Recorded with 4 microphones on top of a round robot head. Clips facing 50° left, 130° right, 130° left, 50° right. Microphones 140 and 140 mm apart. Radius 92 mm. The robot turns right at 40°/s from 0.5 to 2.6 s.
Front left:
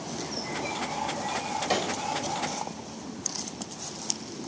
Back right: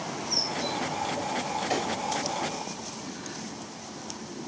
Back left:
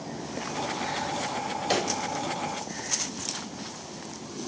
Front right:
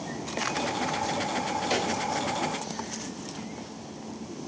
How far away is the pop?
About 1.5 m.